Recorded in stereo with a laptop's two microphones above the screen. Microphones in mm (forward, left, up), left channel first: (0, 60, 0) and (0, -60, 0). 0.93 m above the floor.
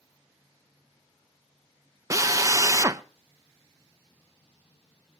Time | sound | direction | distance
2.1 | a drill | 30° right (ahead or behind) | 0.5 m